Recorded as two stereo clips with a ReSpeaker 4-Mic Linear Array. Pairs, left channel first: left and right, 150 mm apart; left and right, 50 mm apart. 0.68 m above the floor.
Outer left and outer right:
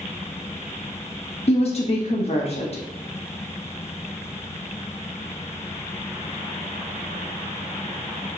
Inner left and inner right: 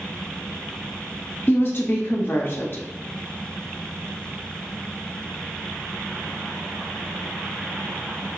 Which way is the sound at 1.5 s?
45° left (ahead or behind).